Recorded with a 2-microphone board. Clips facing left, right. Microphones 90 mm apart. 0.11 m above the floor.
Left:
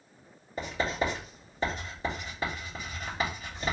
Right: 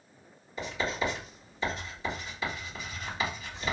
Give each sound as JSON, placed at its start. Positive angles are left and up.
{"t": 0.6, "sound": "writing", "side_deg": 45, "distance_m": 2.5}